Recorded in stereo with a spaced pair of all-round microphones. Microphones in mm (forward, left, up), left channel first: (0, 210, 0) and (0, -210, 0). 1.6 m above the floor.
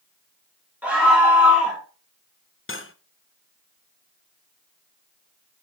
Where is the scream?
5° right (ahead or behind), 3.5 m.